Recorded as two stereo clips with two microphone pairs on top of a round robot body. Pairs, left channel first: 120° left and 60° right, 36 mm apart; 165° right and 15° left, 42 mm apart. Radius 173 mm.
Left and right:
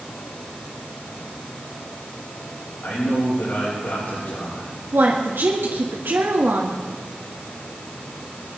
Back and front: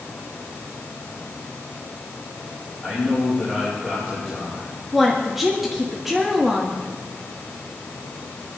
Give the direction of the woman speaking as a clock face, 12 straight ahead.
2 o'clock.